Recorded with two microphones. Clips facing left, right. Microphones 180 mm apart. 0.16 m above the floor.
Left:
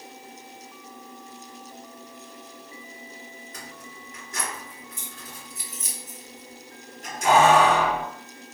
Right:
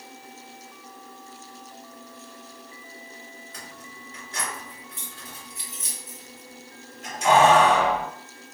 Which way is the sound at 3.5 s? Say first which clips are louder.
Left 1 dB; 45° left (ahead or behind).